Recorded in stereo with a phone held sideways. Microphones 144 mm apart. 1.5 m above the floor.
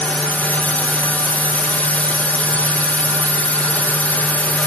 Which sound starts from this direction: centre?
A drone, at 0.0 s.